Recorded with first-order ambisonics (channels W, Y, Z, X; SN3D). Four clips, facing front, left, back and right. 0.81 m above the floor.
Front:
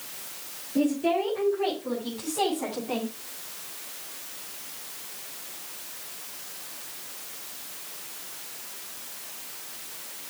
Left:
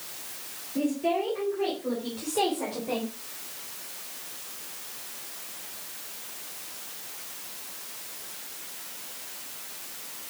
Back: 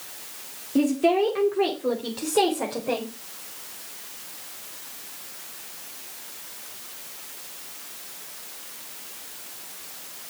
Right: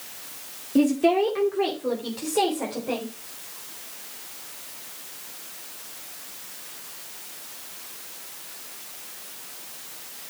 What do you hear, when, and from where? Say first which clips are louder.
0.8 s a woman speaking: right 7 dB, back 4 dB; 120° right, 2.5 m; by 3.1 s 170° right, 4 m